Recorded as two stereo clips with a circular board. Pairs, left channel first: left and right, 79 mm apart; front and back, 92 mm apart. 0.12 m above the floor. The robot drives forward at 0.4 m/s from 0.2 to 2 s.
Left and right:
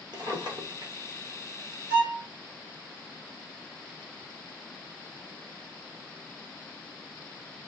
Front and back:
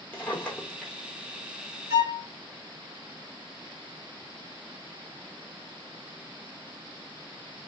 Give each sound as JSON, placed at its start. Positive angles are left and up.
{"t": 0.1, "sound": "a drawer", "azimuth_deg": -70, "distance_m": 1.1}
{"t": 1.9, "sound": "a violin", "azimuth_deg": -150, "distance_m": 1.9}